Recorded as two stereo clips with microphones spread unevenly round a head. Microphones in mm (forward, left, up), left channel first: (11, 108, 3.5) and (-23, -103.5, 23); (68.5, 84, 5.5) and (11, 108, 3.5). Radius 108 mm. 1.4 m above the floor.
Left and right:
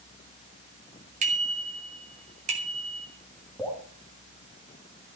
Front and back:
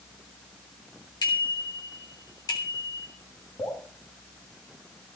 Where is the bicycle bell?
40° right, 4 m.